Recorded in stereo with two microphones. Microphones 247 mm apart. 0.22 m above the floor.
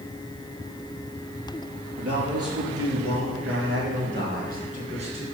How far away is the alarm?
No alarm in this recording.